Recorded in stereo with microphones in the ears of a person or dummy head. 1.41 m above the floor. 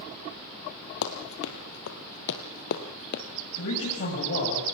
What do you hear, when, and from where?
1.0 s running footsteps: 60° left (ahead or behind), 3 m; by 3.2 s 45° left (ahead or behind), 3 m
3.5 s a man speaking: 55° left (ahead or behind), 7 m